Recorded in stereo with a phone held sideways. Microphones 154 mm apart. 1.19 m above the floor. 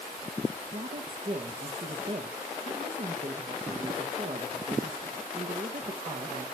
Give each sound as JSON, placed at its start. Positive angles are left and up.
{"t": 0.7, "sound": "a woman speaking", "side_deg": -55, "distance_m": 1.4}